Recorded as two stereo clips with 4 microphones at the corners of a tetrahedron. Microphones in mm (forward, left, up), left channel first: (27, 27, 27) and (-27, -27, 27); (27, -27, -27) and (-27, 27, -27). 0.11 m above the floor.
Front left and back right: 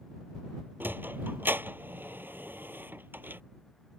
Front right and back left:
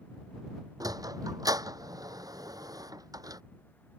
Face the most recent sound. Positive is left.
turn(degrees=165)